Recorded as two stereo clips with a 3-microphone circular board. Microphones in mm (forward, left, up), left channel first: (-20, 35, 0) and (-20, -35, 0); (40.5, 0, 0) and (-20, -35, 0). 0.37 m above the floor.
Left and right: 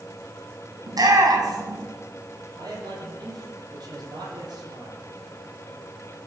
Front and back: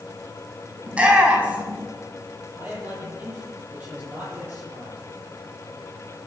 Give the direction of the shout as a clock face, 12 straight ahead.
3 o'clock.